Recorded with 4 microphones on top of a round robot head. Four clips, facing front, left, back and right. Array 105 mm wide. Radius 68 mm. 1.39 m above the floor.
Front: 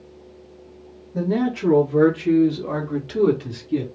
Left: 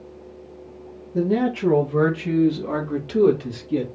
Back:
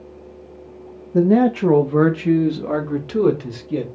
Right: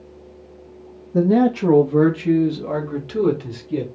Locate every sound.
1.1 s a man speaking: 140° right, 0.8 m; by 3.9 s straight behind, 2 m